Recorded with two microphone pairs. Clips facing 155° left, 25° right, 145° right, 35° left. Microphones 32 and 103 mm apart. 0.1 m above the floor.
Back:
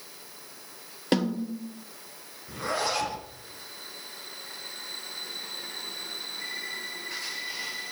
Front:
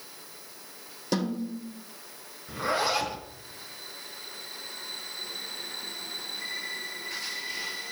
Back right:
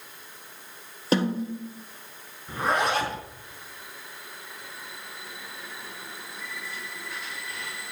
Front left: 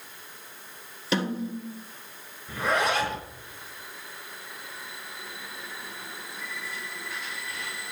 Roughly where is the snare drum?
Behind.